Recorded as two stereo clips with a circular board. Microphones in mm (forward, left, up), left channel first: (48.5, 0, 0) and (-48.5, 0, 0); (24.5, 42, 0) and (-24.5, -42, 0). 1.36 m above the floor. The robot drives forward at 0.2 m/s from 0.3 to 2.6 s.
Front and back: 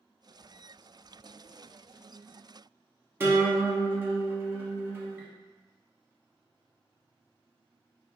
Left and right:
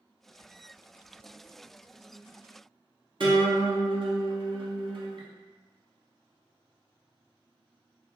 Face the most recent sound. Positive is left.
turn(degrees=-120)